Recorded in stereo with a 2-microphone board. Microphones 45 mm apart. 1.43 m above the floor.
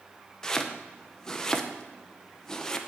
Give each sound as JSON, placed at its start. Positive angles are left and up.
{"t": 0.4, "sound": "chopping", "side_deg": 15, "distance_m": 0.7}